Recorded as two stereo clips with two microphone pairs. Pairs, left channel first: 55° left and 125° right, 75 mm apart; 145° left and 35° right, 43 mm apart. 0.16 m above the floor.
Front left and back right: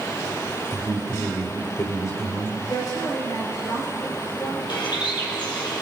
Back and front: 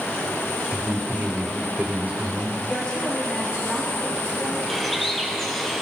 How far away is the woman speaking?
About 4 m.